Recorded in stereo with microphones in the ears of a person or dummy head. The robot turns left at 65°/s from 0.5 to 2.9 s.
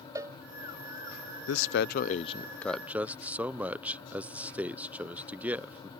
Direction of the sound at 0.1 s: 15° right (ahead or behind).